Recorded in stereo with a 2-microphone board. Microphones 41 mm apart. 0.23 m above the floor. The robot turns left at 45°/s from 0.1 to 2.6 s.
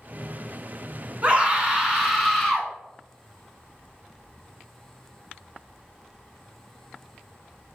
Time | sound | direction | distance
1.2 | a scream | 130° right | 1.8 m